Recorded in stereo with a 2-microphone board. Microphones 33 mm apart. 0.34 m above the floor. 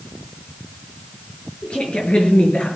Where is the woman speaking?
35° left (ahead or behind), 6.5 m.